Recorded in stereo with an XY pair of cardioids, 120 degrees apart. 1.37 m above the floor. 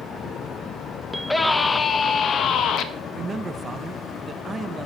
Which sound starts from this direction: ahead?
A scream, at 1.1 s.